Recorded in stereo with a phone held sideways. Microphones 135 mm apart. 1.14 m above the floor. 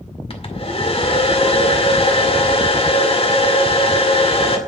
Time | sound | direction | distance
0.3 | a hair dryer | 45° left (ahead or behind) | 1.9 m